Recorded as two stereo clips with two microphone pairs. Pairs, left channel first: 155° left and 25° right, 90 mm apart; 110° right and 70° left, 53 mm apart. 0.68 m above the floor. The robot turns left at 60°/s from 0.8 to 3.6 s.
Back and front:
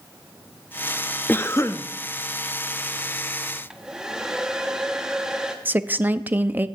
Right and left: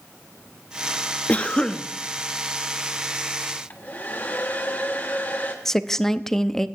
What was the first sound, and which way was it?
A cough, 150° right.